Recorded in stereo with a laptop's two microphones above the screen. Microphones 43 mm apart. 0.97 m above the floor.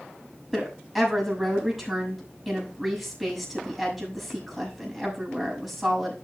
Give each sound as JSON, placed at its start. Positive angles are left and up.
{"t": 0.5, "sound": "a woman speaking", "side_deg": 0, "distance_m": 6.0}